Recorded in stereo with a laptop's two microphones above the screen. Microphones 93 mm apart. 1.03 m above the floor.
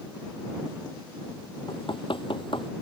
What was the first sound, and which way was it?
Knocking, 65° left (ahead or behind).